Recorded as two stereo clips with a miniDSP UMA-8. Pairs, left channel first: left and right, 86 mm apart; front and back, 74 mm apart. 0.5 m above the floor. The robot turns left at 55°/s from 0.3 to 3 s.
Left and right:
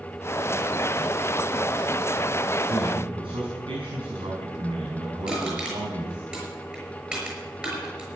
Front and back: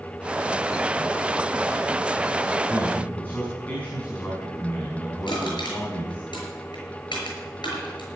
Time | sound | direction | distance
2.6 | a man speaking | 50° right | 5.5 m
5.3 | crushing | 10° right | 6 m